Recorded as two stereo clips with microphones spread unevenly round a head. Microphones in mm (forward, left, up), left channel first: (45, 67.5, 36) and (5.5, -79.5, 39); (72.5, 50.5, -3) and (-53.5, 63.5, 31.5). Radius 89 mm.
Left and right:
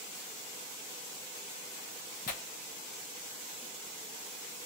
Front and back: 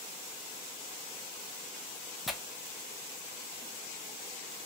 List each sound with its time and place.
2.3 s tearing paper: 75° left, 0.7 m